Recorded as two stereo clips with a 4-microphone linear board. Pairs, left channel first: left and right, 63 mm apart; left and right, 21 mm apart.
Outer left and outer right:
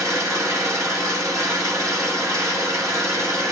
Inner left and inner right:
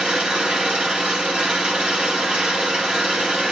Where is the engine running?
65° right (ahead or behind), 3 m.